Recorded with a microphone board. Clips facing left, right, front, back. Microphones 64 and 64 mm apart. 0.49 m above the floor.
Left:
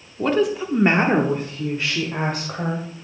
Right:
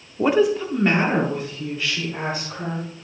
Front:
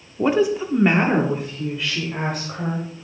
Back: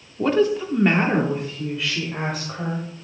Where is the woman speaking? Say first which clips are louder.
Right 2 dB, even; 50° right, 0.9 m; by 3.0 s 90° left, 2.5 m.